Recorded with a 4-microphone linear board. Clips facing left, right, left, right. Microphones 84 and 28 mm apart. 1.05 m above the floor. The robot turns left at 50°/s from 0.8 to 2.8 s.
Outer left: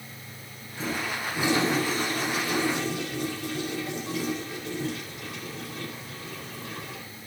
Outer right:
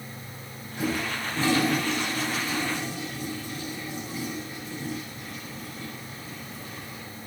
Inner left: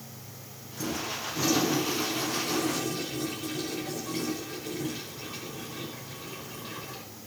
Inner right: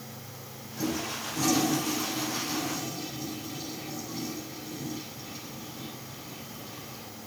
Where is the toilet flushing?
165° right, 4.5 m; by 7.0 s 95° left, 4.5 m.